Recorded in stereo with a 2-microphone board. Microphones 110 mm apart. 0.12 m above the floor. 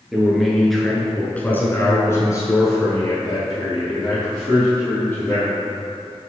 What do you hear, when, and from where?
0.1 s a man speaking: 5° right (ahead or behind), 1.8 m; by 5.5 s 30° left (ahead or behind), 3.5 m